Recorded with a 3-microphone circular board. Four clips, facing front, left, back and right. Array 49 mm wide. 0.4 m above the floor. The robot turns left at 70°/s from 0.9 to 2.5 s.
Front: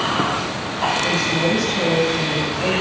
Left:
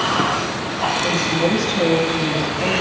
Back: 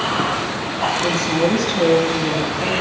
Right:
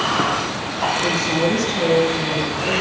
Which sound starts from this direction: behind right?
A woman speaking, at 1.0 s.